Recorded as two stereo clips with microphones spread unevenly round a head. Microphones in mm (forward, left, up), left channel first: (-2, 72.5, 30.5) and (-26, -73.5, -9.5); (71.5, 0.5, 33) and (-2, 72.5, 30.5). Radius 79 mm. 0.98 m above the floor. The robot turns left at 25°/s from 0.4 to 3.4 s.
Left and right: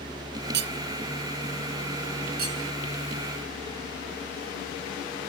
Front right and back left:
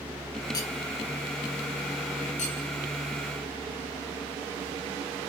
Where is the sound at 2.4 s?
70° right, 5 m; by 2.6 s 75° right, 5 m.